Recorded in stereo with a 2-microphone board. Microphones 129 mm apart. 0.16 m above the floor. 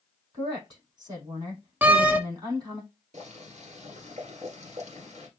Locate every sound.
0.3 s a woman speaking: 30° right (ahead or behind), 4.5 m
1.8 s a door slam: 15° right (ahead or behind), 0.7 m
3.1 s boiling: 60° right (ahead or behind), 2 m